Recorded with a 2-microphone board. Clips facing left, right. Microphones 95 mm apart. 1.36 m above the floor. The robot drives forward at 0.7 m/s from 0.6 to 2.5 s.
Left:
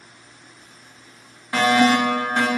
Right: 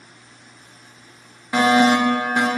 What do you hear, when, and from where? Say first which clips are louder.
1.5 s a fire alarm: right 2 dB; 20° right (ahead or behind), 1.0 m; by 2.5 s 15° right (ahead or behind), 1.2 m